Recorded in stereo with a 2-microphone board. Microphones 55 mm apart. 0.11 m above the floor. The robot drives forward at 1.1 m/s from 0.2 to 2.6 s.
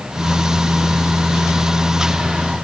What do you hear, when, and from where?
Only background noise.